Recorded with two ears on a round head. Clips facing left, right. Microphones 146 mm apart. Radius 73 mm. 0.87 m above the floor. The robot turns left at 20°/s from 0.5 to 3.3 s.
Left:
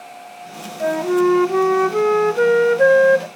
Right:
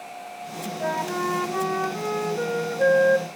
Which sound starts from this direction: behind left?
A flute, at 0.8 s.